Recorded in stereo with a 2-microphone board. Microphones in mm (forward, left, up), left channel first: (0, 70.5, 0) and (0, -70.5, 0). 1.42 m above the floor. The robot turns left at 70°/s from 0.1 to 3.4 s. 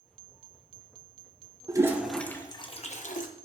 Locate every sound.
1.7 s a toilet flushing: 30° right (ahead or behind), 1.1 m; by 3.3 s 80° left, 1.1 m